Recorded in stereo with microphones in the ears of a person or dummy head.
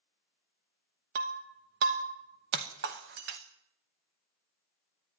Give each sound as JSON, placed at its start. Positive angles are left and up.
{"t": 1.1, "sound": "breaking glass", "side_deg": -35, "distance_m": 0.9}